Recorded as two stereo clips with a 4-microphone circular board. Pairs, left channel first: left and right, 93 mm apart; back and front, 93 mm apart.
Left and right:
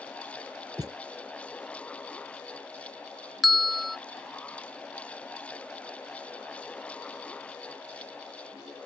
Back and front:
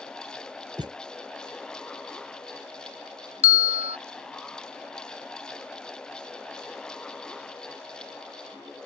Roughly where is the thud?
Ahead right.